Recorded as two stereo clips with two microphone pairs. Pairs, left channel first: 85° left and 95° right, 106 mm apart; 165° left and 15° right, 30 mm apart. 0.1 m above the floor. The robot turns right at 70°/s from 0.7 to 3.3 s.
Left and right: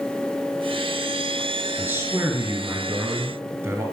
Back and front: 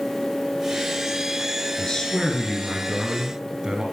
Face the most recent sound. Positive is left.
turn(degrees=-45)